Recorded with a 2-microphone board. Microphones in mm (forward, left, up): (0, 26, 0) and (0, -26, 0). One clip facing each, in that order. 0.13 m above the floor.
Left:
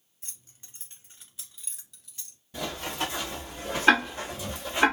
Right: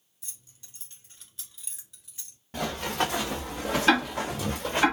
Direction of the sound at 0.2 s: 40° left (ahead or behind).